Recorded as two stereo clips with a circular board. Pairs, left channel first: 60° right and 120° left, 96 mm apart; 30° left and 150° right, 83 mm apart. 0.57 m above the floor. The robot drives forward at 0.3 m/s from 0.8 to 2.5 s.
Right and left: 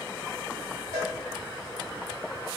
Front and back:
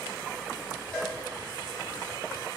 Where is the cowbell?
105° left, 1.0 m; by 1.1 s 110° left, 1.0 m.